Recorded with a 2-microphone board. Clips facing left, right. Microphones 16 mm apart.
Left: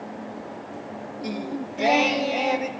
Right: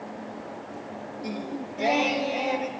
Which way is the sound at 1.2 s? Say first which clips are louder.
Left 3 dB; 20° left (ahead or behind).